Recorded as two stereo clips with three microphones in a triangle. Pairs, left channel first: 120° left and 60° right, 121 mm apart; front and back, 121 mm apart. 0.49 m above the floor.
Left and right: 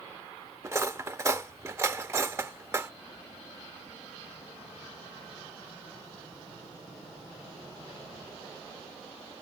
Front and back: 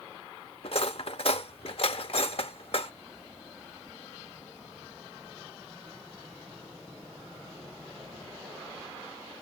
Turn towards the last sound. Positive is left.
turn(degrees=0)